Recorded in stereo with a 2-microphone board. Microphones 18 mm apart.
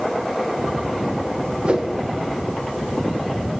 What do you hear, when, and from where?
1.6 s a whoosh: 80° right, 0.7 m